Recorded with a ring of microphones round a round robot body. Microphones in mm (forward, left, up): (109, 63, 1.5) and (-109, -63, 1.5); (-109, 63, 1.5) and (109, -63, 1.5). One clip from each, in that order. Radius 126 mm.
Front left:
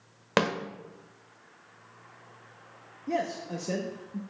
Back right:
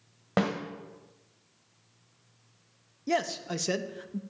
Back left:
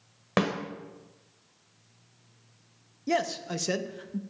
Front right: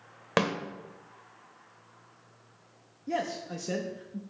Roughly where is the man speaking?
Behind.